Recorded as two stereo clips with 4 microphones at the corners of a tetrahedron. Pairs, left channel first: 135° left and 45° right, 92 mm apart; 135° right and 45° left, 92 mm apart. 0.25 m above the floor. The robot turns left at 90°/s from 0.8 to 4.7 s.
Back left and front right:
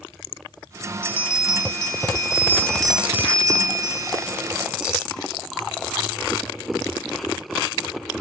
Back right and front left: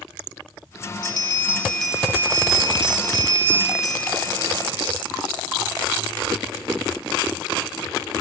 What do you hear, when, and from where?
1.0 s a bell: 150° right, 0.5 m; by 5.0 s 120° right, 0.5 m